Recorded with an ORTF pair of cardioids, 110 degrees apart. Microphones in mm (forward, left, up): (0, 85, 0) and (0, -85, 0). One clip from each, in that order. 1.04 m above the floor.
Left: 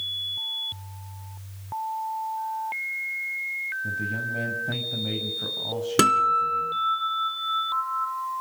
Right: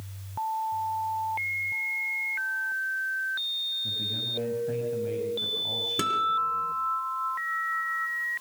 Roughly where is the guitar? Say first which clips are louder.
Left 8 dB; ahead left.